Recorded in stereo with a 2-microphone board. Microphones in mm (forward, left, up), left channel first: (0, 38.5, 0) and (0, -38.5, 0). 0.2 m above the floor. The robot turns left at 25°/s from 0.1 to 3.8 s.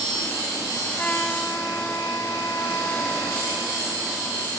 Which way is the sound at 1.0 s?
140° left.